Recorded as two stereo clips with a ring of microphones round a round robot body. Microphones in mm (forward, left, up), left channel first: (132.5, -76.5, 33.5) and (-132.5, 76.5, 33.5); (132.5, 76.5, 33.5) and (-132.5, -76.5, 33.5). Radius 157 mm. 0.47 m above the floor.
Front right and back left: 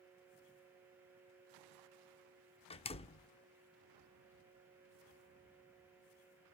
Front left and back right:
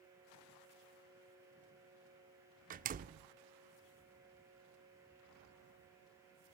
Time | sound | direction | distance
2.7 | a door slam | 95° right | 0.5 m